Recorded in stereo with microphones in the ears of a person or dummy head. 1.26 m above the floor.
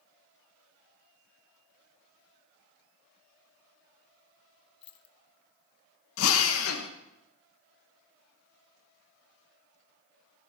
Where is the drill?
70° left (ahead or behind), 1.0 m.